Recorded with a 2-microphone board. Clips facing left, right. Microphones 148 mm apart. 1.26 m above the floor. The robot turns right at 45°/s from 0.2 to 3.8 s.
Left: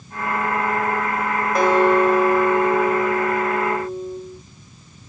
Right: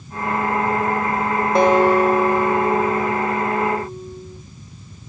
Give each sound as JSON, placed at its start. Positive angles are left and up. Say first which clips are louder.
{"t": 1.6, "sound": "a guitar", "louder": "right 1 dB", "azimuth_deg": -25, "distance_m": 8.0}